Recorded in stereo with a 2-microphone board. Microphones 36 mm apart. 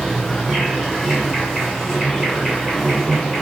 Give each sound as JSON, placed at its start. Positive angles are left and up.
{"t": 0.0, "sound": "an insect", "side_deg": -5, "distance_m": 1.3}